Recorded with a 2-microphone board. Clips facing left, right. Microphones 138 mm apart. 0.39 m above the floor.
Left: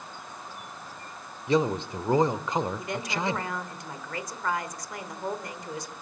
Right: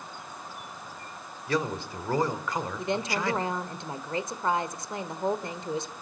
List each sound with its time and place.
1.5 s a man speaking: 20° left (ahead or behind), 0.9 m
2.8 s a woman speaking: 25° right (ahead or behind), 1.2 m